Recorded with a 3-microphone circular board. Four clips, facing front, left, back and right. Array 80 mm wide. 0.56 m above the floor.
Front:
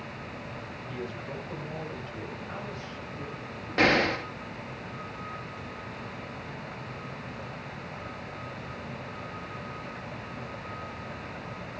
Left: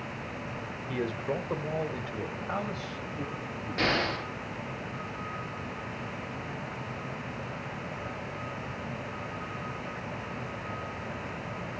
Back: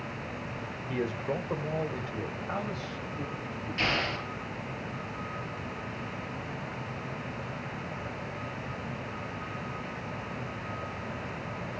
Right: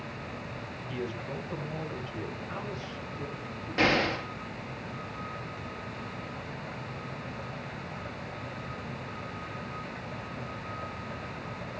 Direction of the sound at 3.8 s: 10° right.